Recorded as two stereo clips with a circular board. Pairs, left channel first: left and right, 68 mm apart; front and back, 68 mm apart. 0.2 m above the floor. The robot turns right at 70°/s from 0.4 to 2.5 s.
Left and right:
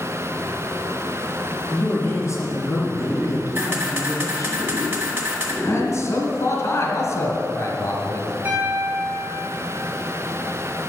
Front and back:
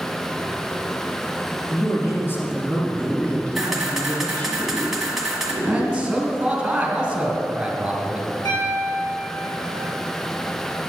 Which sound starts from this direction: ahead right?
A piano, at 8.4 s.